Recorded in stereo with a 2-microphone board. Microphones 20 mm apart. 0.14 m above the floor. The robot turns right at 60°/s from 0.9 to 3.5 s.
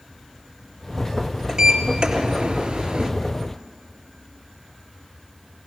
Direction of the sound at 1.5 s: 130° right.